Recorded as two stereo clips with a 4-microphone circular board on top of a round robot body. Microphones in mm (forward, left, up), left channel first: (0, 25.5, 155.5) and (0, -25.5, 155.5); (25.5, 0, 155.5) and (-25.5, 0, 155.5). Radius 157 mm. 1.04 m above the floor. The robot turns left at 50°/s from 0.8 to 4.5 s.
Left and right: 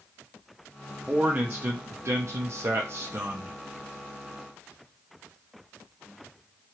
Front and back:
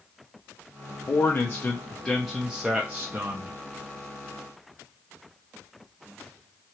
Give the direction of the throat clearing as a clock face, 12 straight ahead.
No throat clearing in this recording.